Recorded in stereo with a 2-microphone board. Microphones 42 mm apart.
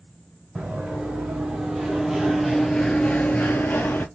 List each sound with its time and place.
0.6 s running footsteps: 20° right (ahead or behind), 1.4 m; by 4.0 s 50° left (ahead or behind), 0.7 m